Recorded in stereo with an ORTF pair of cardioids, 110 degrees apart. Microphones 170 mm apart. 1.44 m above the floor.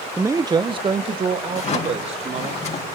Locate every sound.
0.2 s a man speaking: 10° right, 0.9 m; by 2.5 s 40° right, 4.5 m
1.5 s a drawer: 40° left, 5.5 m